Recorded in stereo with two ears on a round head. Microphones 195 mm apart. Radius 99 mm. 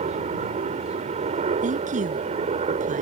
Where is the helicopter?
30° right (ahead or behind).